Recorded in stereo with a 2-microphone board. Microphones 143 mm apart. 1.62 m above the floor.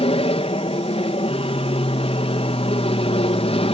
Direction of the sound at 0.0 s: 45° left (ahead or behind).